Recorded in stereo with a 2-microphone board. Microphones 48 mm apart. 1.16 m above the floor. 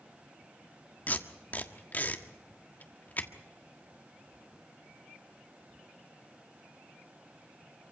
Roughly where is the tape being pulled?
Left.